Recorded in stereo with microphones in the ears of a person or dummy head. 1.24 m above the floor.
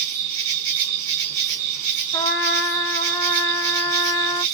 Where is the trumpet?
15° left (ahead or behind), 0.8 m.